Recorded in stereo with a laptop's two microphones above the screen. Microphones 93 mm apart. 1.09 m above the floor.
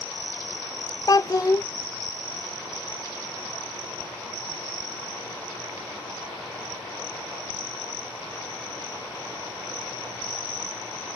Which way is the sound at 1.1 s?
40° left (ahead or behind).